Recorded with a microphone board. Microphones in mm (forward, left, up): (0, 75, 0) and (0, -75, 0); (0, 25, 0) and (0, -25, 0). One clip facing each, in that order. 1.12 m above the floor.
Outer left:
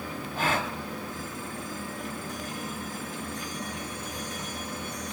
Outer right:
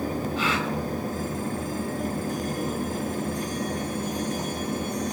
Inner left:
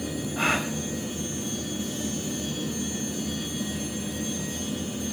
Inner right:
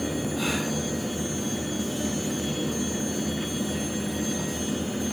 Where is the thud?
No thud in this recording.